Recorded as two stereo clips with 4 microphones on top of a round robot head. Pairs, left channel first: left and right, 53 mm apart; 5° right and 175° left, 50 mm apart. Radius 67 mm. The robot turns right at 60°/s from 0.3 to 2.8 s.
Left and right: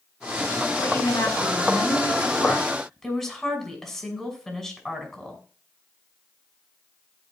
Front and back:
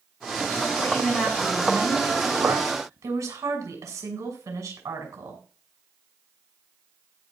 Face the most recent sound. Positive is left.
turn(degrees=180)